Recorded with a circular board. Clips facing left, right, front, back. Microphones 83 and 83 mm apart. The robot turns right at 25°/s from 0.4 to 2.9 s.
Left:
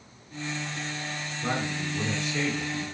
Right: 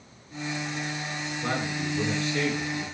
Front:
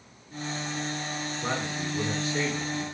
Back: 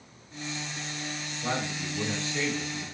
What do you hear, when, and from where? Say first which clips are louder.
1.4 s a man speaking: even, back 1 dB; 10° right, 3.5 m; by 2.9 s 25° left, 3.5 m